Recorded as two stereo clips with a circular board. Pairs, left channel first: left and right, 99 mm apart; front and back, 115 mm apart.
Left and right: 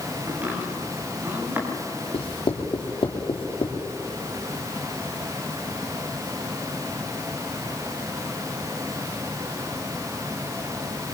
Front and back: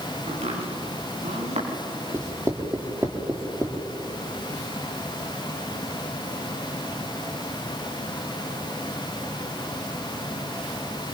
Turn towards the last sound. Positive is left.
turn(degrees=115)